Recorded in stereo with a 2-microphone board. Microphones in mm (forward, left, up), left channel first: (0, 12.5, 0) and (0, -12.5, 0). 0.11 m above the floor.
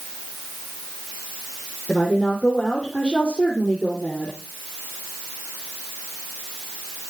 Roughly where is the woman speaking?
Left.